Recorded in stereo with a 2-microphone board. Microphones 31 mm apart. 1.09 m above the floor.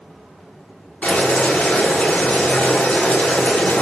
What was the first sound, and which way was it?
Boiling, 50° left (ahead or behind).